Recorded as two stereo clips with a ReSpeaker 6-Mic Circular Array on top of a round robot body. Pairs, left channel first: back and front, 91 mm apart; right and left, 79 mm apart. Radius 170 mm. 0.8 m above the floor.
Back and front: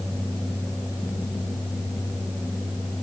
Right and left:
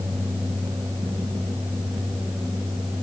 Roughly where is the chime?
I don't hear a chime.